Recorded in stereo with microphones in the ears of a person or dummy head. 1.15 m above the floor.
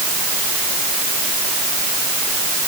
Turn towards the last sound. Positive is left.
No sound to turn to.